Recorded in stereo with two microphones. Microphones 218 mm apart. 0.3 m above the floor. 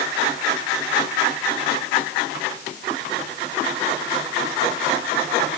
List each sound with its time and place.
Only background noise.